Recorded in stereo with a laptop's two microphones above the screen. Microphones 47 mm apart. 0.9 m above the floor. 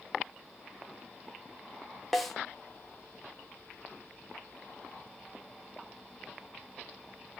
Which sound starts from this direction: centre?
A snare drum, at 2.1 s.